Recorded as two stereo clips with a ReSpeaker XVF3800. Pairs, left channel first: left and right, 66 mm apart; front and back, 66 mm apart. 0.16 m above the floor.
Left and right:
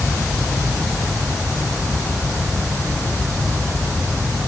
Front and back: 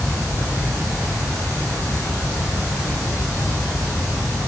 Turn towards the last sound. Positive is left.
No sound to turn to.